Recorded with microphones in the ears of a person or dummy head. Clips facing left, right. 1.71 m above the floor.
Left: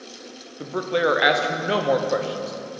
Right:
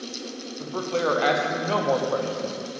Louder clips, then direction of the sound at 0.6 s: Left 3 dB; 20° left (ahead or behind).